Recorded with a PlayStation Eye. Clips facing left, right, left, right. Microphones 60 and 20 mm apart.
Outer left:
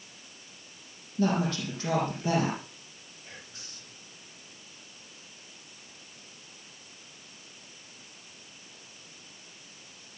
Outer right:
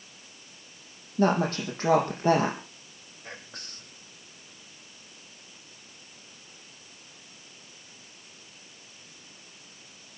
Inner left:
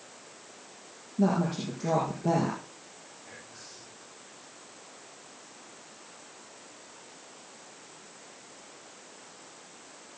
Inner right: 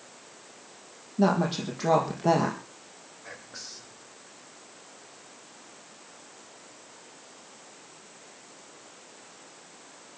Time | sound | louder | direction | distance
1.2 | a woman speaking | outer right 3 dB, inner right 3 dB | 50° right (ahead or behind) | 5 m
3.2 | whispering | outer right 6 dB, inner right 8 dB | 60° right (ahead or behind) | 5 m